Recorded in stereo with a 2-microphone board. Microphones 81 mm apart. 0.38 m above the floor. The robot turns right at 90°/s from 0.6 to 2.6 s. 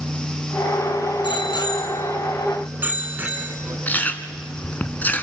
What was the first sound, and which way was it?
A bicycle bell, 80° left.